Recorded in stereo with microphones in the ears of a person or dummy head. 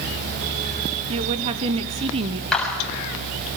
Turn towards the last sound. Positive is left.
turn(degrees=5)  # may be behind; listen again after turning